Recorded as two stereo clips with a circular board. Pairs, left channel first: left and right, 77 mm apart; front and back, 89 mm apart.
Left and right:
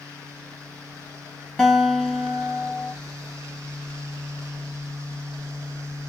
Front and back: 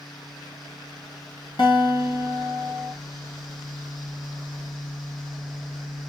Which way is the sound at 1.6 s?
15° left.